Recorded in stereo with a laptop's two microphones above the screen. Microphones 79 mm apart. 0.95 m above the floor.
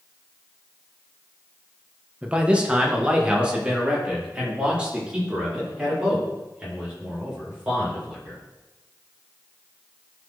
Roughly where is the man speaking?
Centre.